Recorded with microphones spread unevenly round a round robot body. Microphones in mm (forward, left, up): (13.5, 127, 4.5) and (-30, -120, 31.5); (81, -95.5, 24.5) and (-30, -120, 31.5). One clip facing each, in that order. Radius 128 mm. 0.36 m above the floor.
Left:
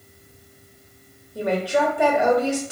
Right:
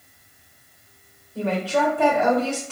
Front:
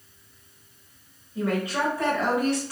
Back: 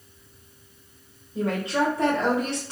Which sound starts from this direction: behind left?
A woman speaking, at 1.4 s.